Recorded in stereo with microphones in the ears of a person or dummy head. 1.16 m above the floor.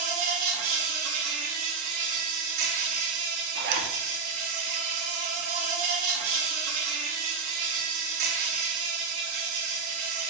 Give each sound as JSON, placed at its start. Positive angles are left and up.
{"t": 0.0, "sound": "an insect", "side_deg": -45, "distance_m": 0.8}
{"t": 3.5, "sound": "a zipper", "side_deg": -60, "distance_m": 1.0}